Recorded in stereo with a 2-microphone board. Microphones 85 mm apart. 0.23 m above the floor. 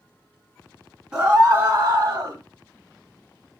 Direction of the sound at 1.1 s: 10° right (ahead or behind).